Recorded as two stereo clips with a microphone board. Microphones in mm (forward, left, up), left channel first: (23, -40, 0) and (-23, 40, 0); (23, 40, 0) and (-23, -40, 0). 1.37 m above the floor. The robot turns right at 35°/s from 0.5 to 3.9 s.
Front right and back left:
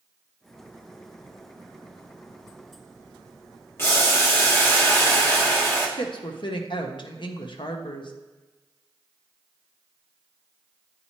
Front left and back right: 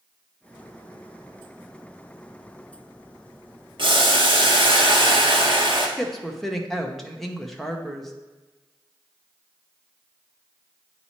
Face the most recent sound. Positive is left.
turn(degrees=-30)